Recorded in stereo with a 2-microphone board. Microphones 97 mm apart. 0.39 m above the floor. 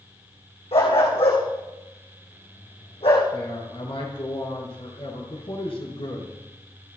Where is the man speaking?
70° left (ahead or behind), 6.5 m.